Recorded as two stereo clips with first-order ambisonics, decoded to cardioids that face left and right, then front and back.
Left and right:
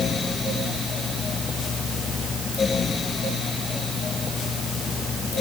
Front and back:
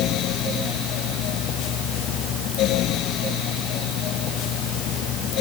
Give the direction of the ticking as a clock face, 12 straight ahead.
I don't hear ticking.